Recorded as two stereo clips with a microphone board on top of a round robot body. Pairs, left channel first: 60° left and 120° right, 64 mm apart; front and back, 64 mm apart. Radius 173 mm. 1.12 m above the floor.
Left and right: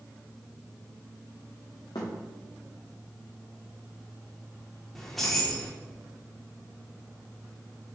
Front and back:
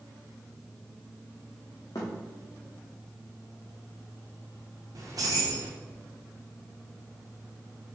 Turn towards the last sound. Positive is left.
turn(degrees=145)